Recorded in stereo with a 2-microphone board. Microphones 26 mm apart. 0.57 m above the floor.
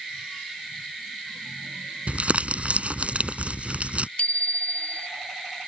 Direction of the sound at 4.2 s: 60° left (ahead or behind).